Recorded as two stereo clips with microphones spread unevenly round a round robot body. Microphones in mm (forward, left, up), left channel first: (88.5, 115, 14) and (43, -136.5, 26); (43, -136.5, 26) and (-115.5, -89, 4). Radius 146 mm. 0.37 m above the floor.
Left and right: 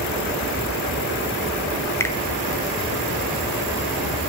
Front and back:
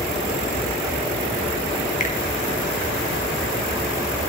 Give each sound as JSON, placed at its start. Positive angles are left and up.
{"t": 2.0, "sound": "a finger snap", "azimuth_deg": 5, "distance_m": 0.8}